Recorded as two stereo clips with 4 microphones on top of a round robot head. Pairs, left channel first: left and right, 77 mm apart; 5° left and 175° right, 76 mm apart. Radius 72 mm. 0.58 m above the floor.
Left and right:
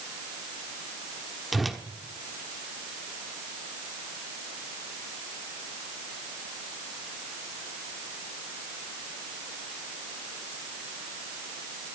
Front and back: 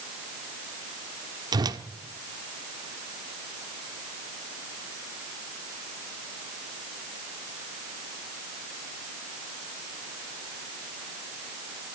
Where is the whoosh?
Straight behind, 1.2 m.